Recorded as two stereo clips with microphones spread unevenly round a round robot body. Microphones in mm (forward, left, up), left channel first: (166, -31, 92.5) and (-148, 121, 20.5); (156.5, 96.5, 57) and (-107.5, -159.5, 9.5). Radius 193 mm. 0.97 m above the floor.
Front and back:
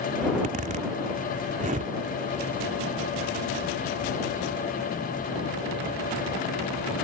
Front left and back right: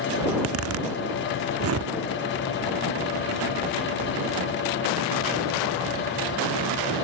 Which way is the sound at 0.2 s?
130° right.